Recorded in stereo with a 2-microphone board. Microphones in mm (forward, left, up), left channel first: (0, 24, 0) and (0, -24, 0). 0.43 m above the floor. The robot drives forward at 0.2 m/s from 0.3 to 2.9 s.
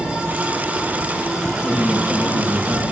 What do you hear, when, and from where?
1.6 s a man speaking: 40° right (ahead or behind), 5.5 m